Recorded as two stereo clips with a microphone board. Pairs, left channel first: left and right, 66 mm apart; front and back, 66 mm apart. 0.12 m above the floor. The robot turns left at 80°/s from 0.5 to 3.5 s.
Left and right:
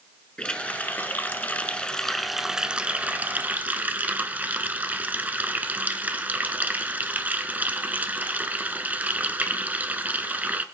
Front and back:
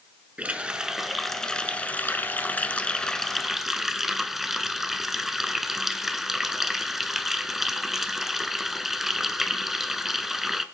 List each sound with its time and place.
0.4 s a running tap: 140° left, 0.8 m; by 10.7 s 100° right, 0.8 m